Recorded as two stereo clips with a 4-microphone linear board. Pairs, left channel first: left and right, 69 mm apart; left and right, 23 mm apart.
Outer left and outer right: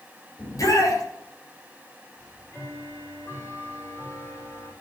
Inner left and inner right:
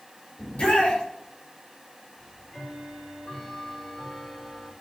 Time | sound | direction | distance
0.4 | a shout | 55° left (ahead or behind) | 5.5 m
2.2 | ticking | 35° left (ahead or behind) | 6 m